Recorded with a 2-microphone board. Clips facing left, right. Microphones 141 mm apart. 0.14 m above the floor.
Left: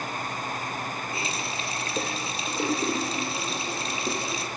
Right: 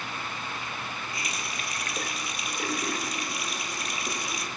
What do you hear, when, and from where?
1.1 s a running tap: 25° left (ahead or behind), 2.5 m